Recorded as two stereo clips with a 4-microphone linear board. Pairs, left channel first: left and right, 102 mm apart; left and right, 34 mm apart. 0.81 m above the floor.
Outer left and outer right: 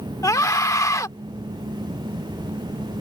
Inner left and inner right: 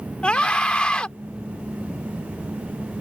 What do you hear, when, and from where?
0.2 s a scream: 35° left (ahead or behind)